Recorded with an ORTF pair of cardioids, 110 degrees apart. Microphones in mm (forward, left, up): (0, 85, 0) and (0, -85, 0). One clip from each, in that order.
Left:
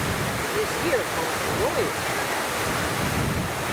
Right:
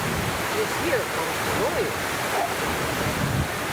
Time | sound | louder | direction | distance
0.5 | a woman speaking | left 1 dB | straight ahead | ?